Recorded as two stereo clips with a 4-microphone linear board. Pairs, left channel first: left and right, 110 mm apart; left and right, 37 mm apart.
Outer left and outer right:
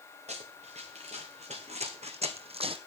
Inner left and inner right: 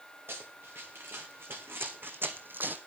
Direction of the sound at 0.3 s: 80° right.